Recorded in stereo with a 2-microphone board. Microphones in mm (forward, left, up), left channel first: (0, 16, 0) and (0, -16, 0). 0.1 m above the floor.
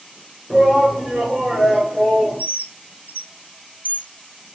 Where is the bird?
65° right (ahead or behind), 0.6 m.